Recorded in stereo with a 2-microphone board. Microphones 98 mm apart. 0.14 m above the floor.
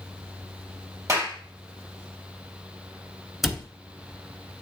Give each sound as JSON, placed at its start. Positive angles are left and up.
{"t": 1.1, "sound": "a clap", "side_deg": -35, "distance_m": 2.5}
{"t": 3.4, "sound": "a cupboard door", "side_deg": -5, "distance_m": 1.0}